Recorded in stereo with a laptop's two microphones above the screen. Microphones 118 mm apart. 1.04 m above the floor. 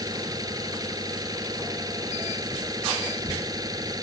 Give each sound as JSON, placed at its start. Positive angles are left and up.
{"t": 0.0, "sound": "an engine running", "side_deg": -30}